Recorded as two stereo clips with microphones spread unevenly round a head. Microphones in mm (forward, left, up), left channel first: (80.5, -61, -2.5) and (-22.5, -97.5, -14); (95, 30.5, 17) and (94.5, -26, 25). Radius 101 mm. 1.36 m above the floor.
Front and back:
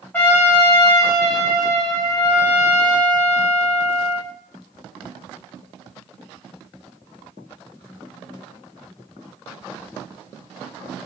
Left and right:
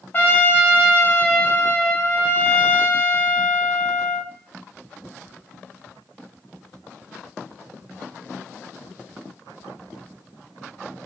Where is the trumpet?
100° left, 0.5 m.